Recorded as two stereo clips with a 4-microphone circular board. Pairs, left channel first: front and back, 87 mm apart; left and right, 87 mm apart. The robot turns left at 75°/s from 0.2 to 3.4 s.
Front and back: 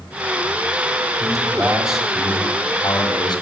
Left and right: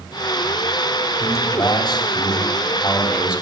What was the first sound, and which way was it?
A man speaking, 150° left.